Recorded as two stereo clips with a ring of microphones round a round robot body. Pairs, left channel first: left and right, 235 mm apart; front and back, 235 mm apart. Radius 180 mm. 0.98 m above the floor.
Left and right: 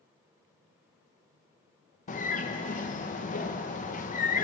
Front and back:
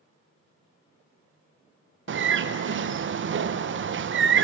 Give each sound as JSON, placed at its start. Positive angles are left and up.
{"t": 2.1, "sound": "a bird", "azimuth_deg": 145, "distance_m": 0.6}